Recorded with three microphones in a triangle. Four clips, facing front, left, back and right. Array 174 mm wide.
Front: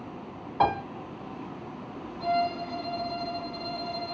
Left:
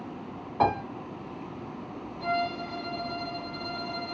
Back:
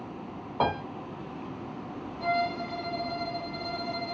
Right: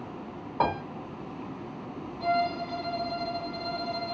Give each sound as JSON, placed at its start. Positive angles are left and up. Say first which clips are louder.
{"t": 0.6, "sound": "a piano", "louder": "left 3 dB, front 3 dB", "azimuth_deg": -165, "distance_m": 1.5}
{"t": 2.2, "sound": "a violin", "louder": "right 3 dB, front 2 dB", "azimuth_deg": 175, "distance_m": 1.8}